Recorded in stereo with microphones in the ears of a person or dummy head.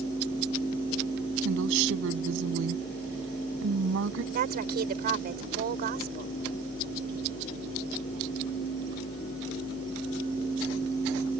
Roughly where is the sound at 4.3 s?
Right.